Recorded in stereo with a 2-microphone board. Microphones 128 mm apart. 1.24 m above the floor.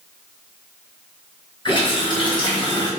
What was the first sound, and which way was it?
A running tap, 35° left (ahead or behind).